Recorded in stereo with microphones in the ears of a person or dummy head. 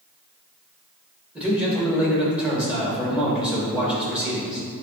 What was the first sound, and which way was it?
A man speaking, centre (ahead or behind).